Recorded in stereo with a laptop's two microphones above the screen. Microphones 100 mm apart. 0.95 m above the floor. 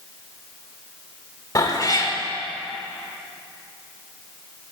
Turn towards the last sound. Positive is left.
turn(degrees=35)  # may be behind; listen again after turning